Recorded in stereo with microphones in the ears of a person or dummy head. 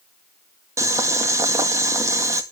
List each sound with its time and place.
0.8 s boiling: 20° right (ahead or behind), 2.0 m